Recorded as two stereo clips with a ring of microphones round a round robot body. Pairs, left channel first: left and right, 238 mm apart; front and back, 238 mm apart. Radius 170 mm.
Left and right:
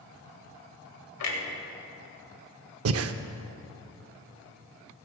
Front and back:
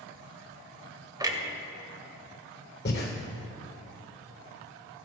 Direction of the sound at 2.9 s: 60° right.